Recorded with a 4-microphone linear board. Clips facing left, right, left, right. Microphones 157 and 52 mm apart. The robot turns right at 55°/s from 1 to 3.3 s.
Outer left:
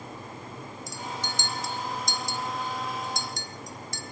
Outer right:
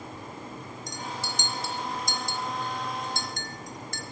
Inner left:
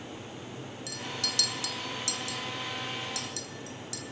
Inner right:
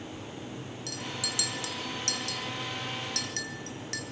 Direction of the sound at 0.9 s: 5° left (ahead or behind).